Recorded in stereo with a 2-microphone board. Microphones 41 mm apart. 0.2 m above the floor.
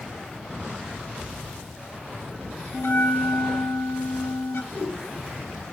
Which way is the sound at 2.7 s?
80° left.